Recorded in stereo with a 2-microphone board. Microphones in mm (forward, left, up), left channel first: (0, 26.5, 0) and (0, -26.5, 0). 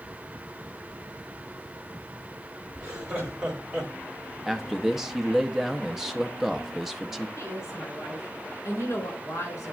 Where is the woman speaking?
60° left (ahead or behind), 3.5 m.